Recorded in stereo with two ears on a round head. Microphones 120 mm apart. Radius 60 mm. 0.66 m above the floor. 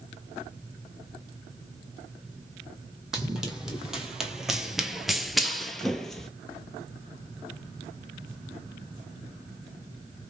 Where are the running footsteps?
5° right (ahead or behind), 1.5 m; by 6.3 s 5° left (ahead or behind), 0.9 m.